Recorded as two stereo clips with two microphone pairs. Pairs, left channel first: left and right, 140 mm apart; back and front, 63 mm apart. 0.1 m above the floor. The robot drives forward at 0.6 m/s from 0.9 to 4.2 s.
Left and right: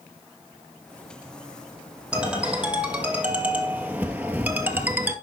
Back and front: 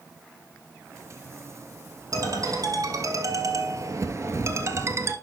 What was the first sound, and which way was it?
A ringtone, 5° right.